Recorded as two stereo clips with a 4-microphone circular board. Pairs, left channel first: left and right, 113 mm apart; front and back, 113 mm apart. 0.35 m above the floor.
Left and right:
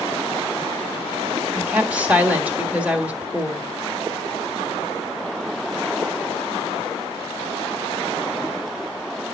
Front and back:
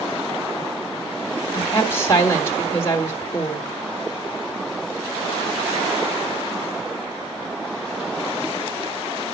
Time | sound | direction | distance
1.5 | a woman speaking | 25° right | 1.5 m